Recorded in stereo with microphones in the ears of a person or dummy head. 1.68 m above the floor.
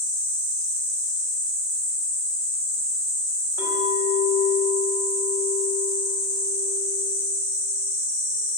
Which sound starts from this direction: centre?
A clink, at 3.6 s.